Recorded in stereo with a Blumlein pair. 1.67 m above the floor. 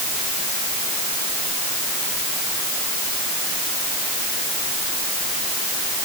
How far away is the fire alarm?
No fire alarm in this recording.